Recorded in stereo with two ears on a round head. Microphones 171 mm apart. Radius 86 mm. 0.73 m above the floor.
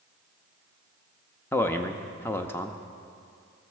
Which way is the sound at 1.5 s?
15° left (ahead or behind).